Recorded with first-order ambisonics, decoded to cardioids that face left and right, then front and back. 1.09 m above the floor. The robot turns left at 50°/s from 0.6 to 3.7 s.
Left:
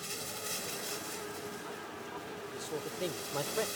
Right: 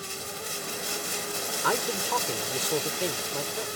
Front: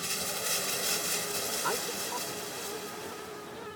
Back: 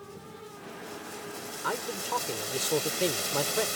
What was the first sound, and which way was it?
Running water, 15° right.